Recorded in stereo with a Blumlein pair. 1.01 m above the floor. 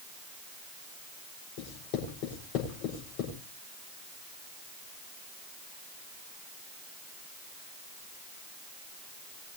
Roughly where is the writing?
Ahead left.